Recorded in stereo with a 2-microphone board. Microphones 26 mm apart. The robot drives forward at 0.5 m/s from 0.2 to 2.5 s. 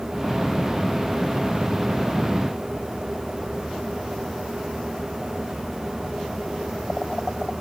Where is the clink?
I don't hear a clink.